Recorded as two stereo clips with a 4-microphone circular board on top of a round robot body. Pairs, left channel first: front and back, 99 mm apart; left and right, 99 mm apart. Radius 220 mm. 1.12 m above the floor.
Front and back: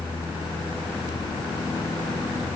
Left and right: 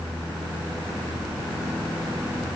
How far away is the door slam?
I don't hear a door slam.